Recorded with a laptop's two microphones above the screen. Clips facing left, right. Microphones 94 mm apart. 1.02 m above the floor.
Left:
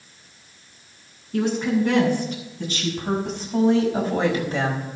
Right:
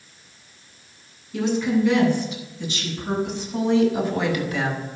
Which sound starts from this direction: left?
A woman speaking, at 1.3 s.